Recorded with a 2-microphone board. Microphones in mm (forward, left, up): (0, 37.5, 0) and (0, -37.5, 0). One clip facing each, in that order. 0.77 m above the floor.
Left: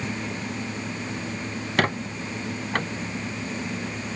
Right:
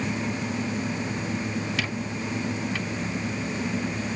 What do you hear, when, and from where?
1.8 s a squeak: 55° left (ahead or behind)